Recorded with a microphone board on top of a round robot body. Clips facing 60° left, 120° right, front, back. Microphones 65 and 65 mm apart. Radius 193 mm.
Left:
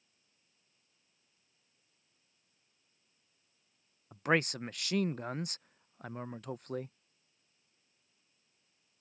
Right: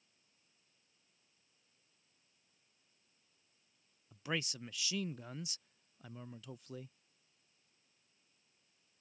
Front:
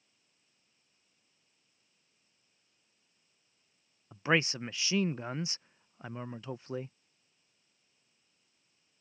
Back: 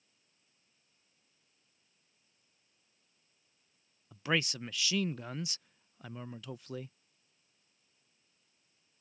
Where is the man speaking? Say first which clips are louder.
Left 10 dB, front 4 dB; 55° left.